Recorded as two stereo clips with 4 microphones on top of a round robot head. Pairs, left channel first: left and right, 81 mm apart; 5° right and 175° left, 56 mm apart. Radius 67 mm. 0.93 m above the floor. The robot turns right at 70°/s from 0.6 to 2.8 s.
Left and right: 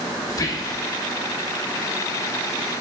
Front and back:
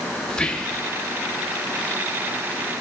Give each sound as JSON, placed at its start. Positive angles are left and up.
{"t": 0.3, "sound": "whispering", "azimuth_deg": 65, "distance_m": 0.8}